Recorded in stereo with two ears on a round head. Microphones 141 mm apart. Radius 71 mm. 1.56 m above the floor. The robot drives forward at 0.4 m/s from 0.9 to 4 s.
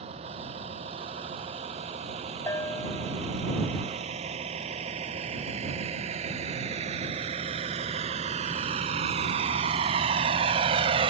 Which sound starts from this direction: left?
A bell, at 2.5 s.